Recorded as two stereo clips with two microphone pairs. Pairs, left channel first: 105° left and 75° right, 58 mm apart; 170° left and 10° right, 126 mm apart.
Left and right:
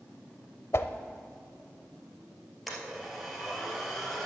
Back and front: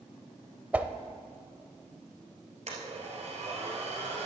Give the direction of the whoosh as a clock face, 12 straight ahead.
10 o'clock.